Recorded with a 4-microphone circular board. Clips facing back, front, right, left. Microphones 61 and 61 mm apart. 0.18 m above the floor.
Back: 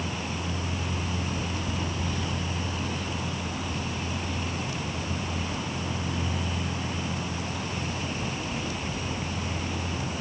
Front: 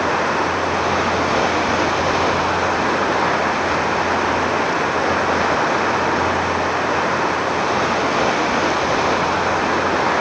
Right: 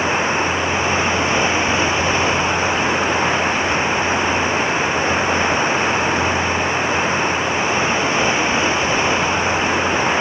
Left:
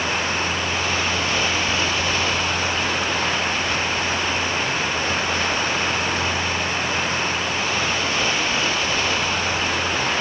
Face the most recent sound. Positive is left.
turn(degrees=-20)